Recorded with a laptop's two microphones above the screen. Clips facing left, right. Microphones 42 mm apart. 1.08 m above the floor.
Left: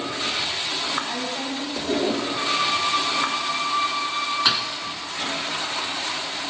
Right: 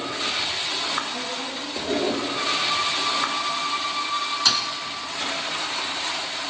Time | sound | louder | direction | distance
1.1 | a woman speaking | left 2 dB | 85° left | 10 m
2.4 | a violin | left 2 dB | centre (ahead or behind) | 4.5 m
4.5 | a thud | even | 20° left (ahead or behind) | 1.1 m